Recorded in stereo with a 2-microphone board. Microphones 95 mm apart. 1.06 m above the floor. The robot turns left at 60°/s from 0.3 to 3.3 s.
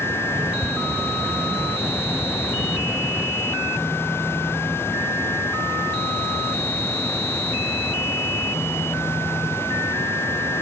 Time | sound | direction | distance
0.6 | ticking | 20° left (ahead or behind) | 0.7 m